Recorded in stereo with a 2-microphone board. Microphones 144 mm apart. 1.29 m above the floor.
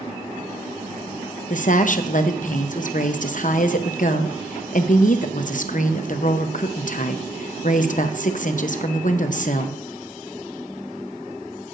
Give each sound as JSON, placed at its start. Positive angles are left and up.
{"t": 1.5, "sound": "a woman speaking", "side_deg": 60, "distance_m": 0.8}